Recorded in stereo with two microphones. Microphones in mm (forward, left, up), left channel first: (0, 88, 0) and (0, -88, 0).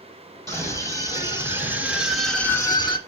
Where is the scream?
20° right (ahead or behind), 3.5 m; by 3.0 s 30° left (ahead or behind), 1.3 m.